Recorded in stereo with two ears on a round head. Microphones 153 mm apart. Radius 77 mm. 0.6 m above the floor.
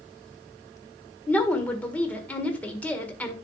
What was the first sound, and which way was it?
A woman speaking, 10° left (ahead or behind).